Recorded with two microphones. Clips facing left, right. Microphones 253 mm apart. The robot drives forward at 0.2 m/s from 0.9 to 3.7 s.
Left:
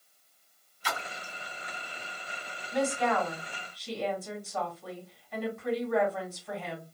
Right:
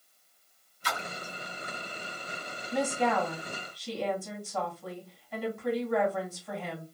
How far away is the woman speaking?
About 1.9 m.